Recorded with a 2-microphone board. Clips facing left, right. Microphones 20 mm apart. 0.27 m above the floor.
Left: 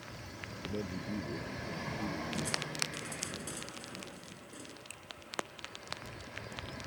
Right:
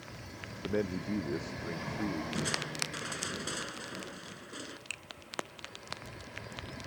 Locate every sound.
0.6 s a man speaking: 75° right (ahead or behind); by 2.2 s 80° right
2.3 s crushing: 45° right (ahead or behind)
4.9 s a finger snap: 45° right (ahead or behind)